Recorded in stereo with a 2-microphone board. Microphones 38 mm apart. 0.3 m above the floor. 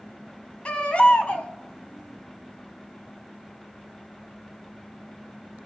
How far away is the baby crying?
About 1.2 m.